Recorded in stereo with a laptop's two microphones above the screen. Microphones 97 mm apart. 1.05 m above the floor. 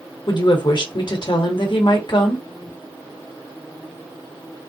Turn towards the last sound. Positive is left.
turn(degrees=55)  # may be behind; listen again after turning